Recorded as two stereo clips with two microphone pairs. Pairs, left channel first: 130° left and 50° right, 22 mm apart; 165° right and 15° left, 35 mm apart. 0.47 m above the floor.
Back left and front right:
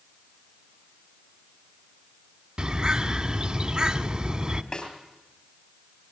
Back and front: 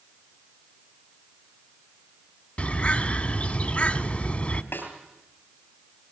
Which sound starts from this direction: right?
A bird, at 2.6 s.